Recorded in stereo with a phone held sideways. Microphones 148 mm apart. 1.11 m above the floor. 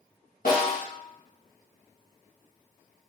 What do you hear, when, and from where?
0.5 s a snare drum: 75° left (ahead or behind), 1.1 m